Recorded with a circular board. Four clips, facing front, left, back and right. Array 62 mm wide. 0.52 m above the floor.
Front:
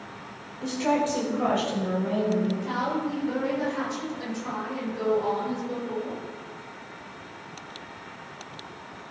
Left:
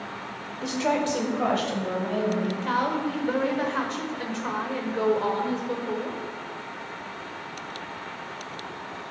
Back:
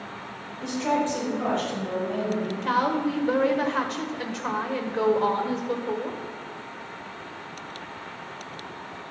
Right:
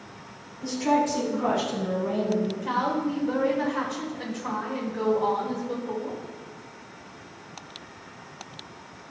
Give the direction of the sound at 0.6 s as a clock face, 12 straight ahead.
9 o'clock.